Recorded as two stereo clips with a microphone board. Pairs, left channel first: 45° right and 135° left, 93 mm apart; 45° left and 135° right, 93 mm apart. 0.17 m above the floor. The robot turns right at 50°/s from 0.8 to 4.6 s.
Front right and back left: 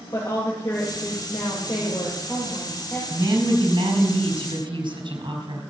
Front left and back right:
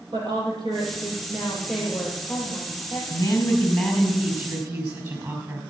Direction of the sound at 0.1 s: 100° right.